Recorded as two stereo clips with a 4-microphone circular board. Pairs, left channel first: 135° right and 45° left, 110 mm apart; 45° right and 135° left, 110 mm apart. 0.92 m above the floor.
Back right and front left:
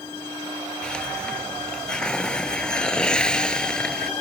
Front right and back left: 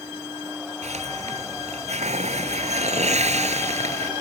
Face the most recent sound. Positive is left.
turn(degrees=140)